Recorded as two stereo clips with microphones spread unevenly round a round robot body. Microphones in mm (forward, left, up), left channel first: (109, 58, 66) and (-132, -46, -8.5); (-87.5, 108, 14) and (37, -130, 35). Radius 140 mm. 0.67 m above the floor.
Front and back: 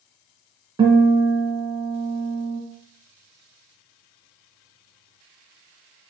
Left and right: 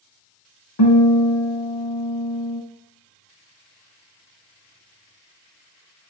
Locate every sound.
0.8 s a guitar: 125° left, 2 m